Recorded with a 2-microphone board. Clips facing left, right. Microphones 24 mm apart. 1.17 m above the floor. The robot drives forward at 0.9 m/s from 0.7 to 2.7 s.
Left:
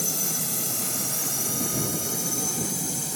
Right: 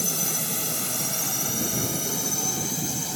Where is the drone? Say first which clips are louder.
Right 1 dB; 15° right (ahead or behind); by 3.2 s 25° right (ahead or behind).